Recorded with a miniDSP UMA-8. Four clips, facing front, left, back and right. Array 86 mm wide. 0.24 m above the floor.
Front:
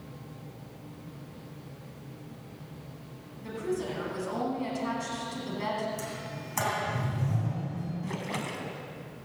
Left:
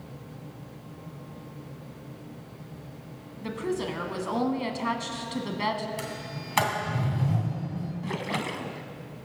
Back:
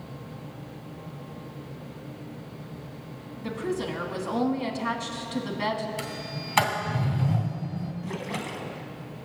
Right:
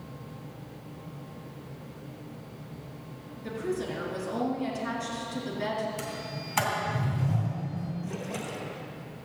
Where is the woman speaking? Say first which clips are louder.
Left 2 dB, back 2 dB; 120° left, 1.7 m.